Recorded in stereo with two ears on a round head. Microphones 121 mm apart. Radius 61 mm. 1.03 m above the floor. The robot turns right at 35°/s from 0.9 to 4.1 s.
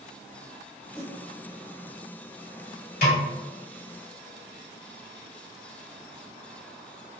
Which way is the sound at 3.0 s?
65° left (ahead or behind).